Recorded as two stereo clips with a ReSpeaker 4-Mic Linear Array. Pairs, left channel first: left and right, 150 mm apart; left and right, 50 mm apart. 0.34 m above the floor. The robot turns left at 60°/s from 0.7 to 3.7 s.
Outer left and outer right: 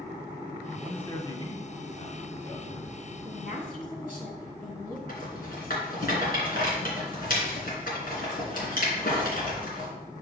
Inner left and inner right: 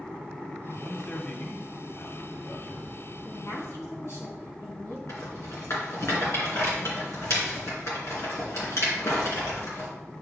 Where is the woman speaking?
65° left (ahead or behind), 2.5 m.